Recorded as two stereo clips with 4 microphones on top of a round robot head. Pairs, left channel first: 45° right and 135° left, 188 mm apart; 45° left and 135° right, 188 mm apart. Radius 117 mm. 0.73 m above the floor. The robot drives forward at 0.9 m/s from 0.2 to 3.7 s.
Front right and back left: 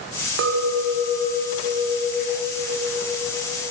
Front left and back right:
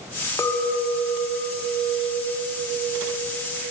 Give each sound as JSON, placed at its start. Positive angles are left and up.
{"t": 0.4, "sound": "a clink", "azimuth_deg": 120, "distance_m": 0.5}